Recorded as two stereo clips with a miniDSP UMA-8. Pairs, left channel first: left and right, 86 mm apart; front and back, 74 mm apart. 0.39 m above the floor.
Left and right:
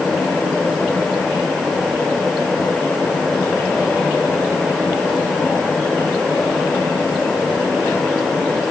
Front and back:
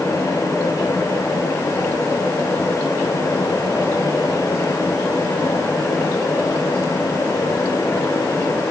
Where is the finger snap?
I don't hear a finger snap.